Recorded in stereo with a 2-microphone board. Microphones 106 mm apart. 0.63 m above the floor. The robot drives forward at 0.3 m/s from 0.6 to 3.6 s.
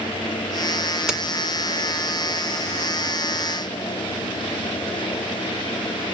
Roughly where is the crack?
Centre.